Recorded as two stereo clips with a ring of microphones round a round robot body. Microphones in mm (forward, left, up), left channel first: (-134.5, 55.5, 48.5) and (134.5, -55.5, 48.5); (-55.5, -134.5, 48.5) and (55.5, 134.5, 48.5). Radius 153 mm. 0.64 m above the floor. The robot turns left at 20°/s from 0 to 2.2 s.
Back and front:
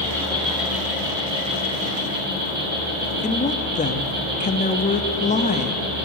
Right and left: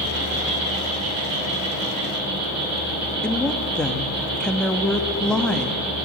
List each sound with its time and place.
0.0 s an insect: 80° left, 5.5 m; by 6.0 s 35° left, 5.5 m
3.2 s a woman speaking: 165° left, 0.9 m